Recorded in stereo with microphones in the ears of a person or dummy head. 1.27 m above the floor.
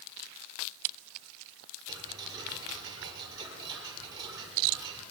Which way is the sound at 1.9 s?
25° right (ahead or behind).